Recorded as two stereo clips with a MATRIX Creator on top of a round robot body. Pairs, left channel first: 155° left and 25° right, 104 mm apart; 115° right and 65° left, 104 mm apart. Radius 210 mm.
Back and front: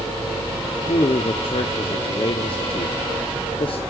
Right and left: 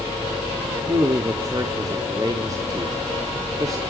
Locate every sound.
0.9 s a man speaking: 125° left, 1.6 m